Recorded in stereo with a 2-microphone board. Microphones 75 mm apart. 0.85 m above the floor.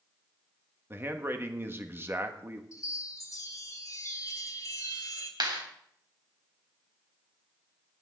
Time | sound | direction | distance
0.9 | a man speaking | 30° right (ahead or behind) | 1.4 m
2.7 | a chime | 45° left (ahead or behind) | 2 m
5.4 | a clap | 80° right | 3.5 m